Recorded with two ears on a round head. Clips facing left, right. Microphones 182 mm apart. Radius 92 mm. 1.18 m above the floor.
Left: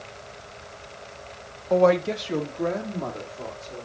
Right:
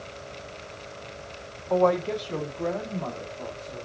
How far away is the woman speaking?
About 0.6 m.